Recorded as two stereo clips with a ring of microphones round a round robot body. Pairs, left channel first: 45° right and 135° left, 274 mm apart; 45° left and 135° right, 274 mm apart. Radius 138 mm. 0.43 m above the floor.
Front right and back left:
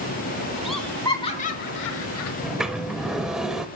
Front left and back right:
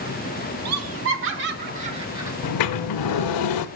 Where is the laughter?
135° right, 1.2 m; by 2.3 s 55° right, 1.3 m.